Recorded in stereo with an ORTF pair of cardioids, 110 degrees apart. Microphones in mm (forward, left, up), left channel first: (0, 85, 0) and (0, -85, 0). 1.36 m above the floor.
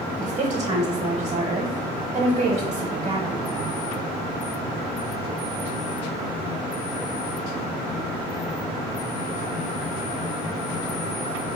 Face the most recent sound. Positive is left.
turn(degrees=-40)